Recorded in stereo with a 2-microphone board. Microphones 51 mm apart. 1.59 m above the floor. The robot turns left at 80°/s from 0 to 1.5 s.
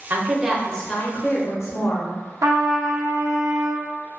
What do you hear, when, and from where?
0.1 s a woman speaking: 140° right, 0.7 m; by 2.1 s 105° left, 0.7 m
2.4 s a trumpet: 80° right, 0.5 m